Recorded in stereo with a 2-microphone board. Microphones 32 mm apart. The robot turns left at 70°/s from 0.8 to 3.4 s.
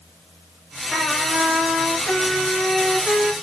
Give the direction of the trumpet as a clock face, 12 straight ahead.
7 o'clock.